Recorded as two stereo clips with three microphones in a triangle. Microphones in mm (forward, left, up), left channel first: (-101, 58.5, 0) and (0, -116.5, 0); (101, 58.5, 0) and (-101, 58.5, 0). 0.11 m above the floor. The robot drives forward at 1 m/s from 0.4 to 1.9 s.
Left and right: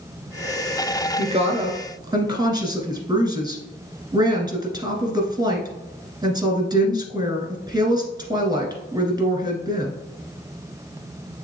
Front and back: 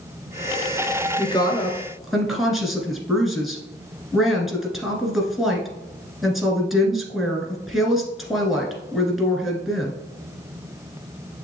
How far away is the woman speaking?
About 1.6 m.